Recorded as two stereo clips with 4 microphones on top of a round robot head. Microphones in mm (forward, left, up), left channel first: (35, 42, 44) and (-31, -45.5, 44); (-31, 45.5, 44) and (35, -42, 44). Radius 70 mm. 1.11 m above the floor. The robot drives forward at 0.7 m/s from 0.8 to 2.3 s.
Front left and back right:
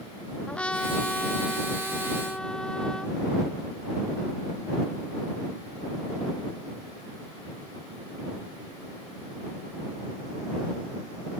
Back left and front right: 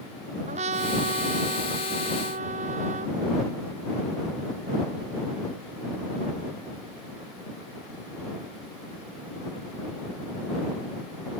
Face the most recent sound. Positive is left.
turn(degrees=-30)